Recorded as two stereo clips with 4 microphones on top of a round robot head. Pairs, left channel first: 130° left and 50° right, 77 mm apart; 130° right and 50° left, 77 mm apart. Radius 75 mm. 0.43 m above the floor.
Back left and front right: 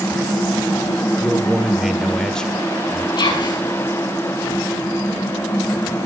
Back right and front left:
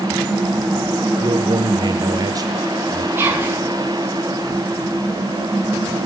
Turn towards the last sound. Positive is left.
turn(degrees=110)